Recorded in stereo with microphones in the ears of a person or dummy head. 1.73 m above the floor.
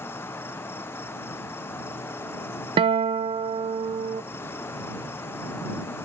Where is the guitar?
30° right (ahead or behind).